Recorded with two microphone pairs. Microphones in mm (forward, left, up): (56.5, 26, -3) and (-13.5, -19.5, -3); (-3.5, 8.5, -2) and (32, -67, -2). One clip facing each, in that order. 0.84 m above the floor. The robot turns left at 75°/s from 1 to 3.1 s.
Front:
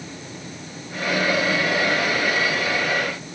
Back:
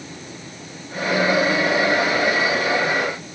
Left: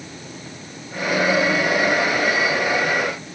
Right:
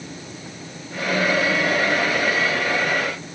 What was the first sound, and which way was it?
Only background noise.